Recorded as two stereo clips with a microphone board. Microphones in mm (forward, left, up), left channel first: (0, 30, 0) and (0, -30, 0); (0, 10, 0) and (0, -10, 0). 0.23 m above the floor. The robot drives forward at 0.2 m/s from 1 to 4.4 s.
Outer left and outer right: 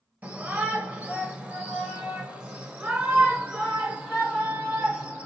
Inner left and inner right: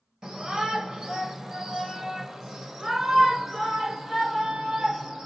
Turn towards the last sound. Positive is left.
turn(degrees=-20)  # may be behind; listen again after turning